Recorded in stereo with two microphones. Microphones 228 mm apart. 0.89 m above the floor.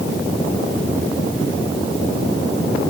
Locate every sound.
Only background noise.